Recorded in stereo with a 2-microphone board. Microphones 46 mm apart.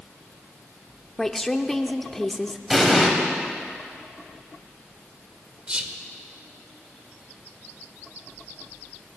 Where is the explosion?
5° right (ahead or behind), 2.5 m.